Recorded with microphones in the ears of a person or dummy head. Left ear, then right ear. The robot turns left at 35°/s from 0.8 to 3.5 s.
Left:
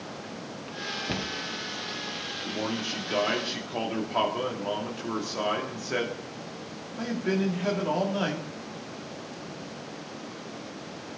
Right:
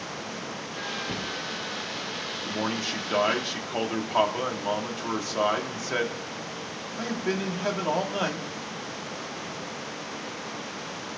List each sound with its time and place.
1.1 s a cupboard door: 10° left (ahead or behind), 0.9 m; by 1.3 s 5° left (ahead or behind), 0.9 m
2.5 s a man speaking: 120° right, 2 m; by 8.5 s 155° right, 2 m